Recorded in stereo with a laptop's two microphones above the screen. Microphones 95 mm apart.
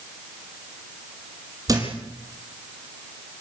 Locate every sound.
1.7 s a thud: 40° right (ahead or behind), 5.5 m